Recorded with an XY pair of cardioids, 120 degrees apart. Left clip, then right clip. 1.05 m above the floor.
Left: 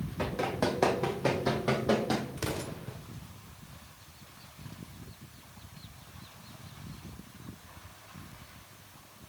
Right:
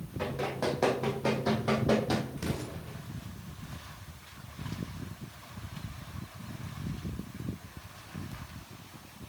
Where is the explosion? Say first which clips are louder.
Left 2 dB; 40° left, 1.6 m.